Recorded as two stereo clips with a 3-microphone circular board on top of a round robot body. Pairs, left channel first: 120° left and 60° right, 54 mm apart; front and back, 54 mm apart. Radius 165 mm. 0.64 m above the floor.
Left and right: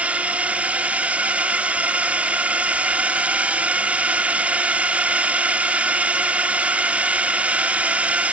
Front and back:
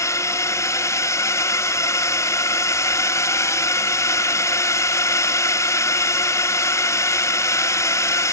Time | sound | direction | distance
0.0 | a drone | 5° left | ?